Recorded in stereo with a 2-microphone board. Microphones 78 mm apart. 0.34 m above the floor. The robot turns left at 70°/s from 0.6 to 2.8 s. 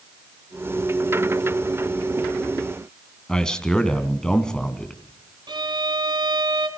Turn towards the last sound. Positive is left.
turn(degrees=-70)  # may be behind; listen again after turning